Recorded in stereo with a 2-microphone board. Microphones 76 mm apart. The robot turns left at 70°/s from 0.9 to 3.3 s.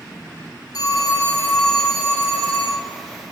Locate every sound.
0.7 s a phone ringing: 60° left, 3.5 m; by 2.9 s 75° right, 3.5 m